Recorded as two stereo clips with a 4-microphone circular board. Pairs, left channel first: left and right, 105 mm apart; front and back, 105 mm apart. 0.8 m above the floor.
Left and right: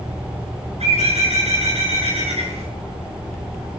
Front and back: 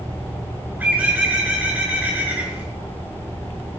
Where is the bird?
105° right, 7 m.